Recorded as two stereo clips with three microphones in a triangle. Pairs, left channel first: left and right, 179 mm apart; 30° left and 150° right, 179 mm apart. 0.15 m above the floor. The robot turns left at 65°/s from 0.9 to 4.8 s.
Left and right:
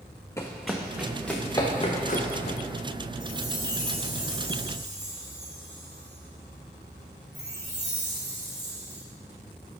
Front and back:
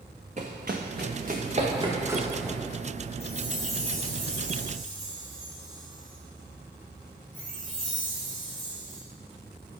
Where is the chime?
15° left, 2.5 m; by 9.0 s 90° right, 2.5 m.